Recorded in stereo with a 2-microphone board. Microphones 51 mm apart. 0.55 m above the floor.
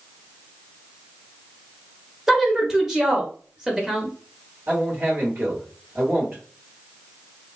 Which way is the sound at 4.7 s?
45° right (ahead or behind).